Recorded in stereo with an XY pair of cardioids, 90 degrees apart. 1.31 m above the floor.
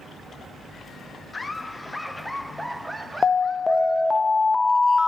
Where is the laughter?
25° left, 1.5 m; by 4.2 s 40° right, 1.8 m.